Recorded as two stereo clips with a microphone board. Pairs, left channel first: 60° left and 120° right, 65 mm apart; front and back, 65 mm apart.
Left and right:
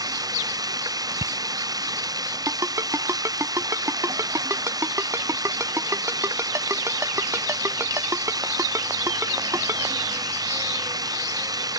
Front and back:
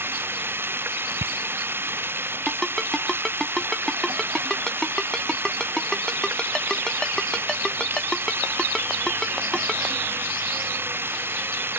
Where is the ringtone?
80° right.